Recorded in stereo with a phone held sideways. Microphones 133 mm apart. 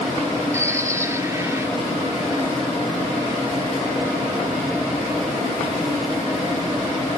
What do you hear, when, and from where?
0.5 s a bird: 20° right (ahead or behind), 1.6 m